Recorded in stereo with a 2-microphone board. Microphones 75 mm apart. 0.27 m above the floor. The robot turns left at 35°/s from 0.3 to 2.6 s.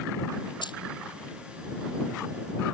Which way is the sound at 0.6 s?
80° left.